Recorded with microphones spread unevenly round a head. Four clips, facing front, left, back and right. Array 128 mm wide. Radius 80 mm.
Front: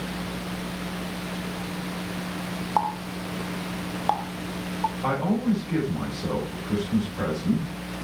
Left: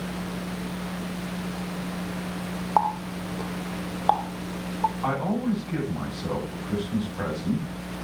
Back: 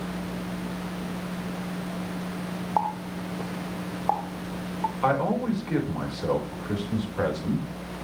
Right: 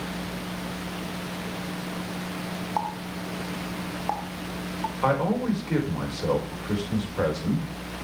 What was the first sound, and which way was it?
A running tap, 125° left.